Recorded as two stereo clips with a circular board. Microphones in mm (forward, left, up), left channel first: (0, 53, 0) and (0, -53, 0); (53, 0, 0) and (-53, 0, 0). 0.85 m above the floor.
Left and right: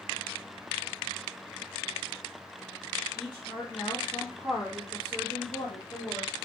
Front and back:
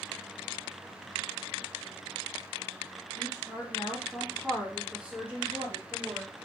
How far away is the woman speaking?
About 1.4 m.